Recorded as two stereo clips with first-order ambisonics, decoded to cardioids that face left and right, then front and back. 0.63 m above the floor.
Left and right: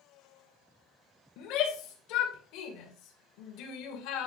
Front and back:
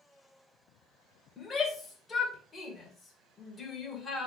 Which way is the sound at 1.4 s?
70° left.